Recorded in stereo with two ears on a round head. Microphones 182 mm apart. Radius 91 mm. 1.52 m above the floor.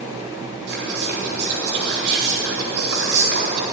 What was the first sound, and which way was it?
Whispering, 50° right (ahead or behind).